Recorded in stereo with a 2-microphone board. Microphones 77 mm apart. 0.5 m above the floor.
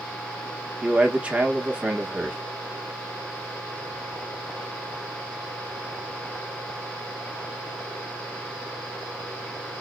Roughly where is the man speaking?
Centre.